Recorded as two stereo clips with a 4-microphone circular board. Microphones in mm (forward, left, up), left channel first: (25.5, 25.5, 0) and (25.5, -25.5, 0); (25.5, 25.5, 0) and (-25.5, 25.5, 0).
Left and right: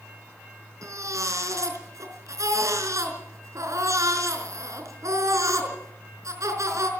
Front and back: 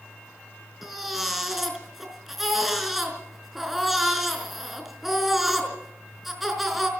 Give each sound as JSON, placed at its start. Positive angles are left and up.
{"t": 0.8, "sound": "a baby crying", "azimuth_deg": -95, "distance_m": 4.5}